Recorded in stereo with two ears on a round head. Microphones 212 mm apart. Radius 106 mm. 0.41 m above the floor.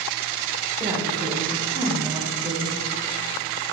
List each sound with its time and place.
0.8 s a woman speaking: 20° right (ahead or behind), 1.5 m; by 2.8 s 15° right (ahead or behind), 1.4 m